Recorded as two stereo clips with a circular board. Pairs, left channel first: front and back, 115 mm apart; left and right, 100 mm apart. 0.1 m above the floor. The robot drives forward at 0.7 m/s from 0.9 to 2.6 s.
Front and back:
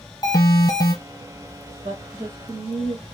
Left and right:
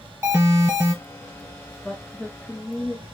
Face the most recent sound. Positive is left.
turn(degrees=170)